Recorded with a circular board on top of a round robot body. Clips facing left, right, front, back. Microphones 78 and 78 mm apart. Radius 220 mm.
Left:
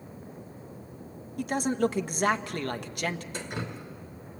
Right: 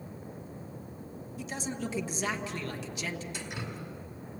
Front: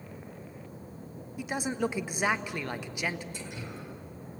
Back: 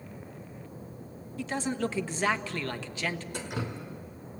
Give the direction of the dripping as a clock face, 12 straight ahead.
7 o'clock.